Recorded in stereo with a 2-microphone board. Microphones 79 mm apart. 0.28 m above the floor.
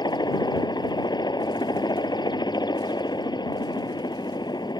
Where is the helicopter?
60° left (ahead or behind).